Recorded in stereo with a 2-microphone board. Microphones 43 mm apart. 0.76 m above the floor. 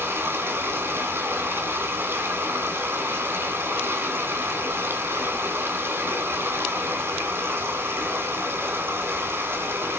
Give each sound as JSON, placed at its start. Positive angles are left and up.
{"t": 0.0, "sound": "running water", "side_deg": -80, "distance_m": 3.5}